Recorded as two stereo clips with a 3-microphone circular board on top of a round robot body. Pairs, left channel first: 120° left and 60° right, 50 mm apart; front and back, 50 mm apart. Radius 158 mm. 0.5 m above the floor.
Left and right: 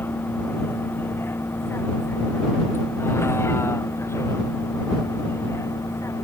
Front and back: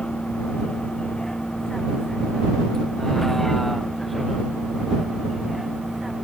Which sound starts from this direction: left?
A vehicle, at 0.0 s.